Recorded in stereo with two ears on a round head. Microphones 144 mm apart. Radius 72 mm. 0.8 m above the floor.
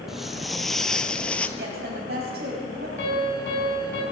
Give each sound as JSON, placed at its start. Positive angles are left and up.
{"t": 0.1, "sound": "footsteps", "side_deg": 0, "distance_m": 1.0}
{"t": 1.6, "sound": "a woman speaking", "side_deg": -70, "distance_m": 5.5}
{"t": 3.0, "sound": "a piano", "side_deg": 80, "distance_m": 5.5}